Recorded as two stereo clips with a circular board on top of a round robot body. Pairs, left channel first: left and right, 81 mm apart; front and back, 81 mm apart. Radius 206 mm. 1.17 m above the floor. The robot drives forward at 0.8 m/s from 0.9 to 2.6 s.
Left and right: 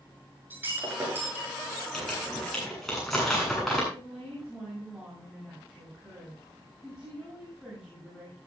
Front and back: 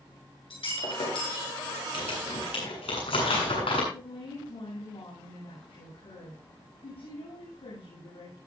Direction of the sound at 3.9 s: 5° right.